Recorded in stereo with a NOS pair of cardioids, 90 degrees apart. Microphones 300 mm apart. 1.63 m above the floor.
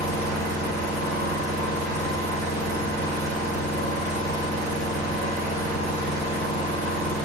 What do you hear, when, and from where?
0.0 s an engine running: 65° right, 1.0 m